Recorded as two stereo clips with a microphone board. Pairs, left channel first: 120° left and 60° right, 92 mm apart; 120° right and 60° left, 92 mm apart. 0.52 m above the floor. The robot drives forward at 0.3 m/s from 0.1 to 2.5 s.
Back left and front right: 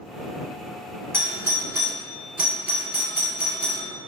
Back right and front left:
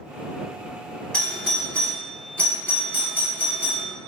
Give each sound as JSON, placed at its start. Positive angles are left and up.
{"t": 1.1, "sound": "a doorbell", "azimuth_deg": -55, "distance_m": 1.3}